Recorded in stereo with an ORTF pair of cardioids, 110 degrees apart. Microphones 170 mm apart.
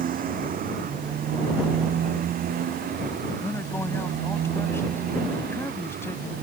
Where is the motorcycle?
55° right; by 6.4 s 60° right.